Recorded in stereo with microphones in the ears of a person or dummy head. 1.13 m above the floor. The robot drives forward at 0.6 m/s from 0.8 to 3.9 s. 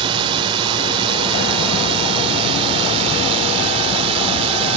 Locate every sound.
0.0 s a drone: 25° right (ahead or behind); by 4.8 s 30° right (ahead or behind)